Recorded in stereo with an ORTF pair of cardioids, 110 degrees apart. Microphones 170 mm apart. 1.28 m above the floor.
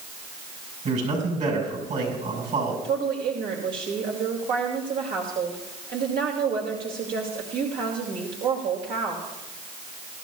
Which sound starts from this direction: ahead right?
A man speaking, at 0.8 s.